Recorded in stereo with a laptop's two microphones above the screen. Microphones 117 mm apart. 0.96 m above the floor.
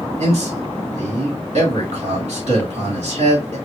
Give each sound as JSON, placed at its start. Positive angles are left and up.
{"t": 0.2, "sound": "a man speaking", "side_deg": -70, "distance_m": 2.0}